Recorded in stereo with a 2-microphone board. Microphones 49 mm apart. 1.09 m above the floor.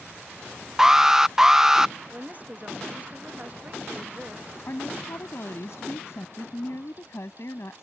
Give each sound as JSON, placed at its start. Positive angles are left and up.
{"t": 0.8, "sound": "an alarm", "side_deg": -10}
{"t": 2.1, "sound": "a woman speaking", "side_deg": -35}
{"t": 4.7, "sound": "a woman speaking", "side_deg": 65}